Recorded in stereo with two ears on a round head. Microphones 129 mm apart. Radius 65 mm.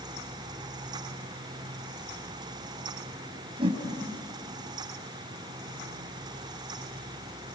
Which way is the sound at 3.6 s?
35° right (ahead or behind).